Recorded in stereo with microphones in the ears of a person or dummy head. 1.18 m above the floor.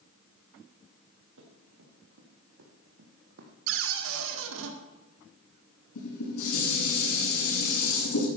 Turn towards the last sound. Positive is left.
turn(degrees=85)